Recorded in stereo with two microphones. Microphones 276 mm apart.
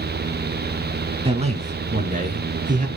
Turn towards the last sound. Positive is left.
turn(degrees=-30)  # may be behind; listen again after turning